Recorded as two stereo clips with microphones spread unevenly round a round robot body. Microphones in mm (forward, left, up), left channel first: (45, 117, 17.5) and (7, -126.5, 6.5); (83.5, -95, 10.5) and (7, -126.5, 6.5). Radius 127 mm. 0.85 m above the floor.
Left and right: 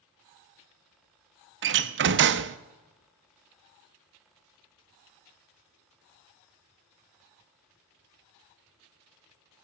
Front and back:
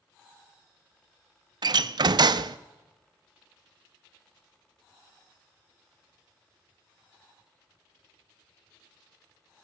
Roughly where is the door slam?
Behind right.